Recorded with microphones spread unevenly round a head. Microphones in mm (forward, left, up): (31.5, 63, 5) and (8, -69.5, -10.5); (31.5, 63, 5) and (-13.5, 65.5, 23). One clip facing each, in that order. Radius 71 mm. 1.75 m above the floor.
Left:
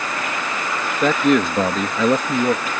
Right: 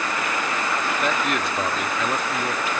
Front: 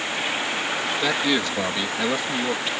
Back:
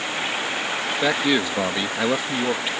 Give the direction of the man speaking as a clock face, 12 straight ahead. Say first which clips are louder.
Left 12 dB, back 3 dB; 9 o'clock.